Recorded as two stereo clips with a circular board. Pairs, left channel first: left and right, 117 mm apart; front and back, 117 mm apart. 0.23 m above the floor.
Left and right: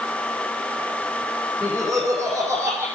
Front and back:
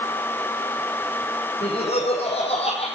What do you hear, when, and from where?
1.6 s laughter: 10° right, 8.5 m; by 2.9 s 15° right, 9 m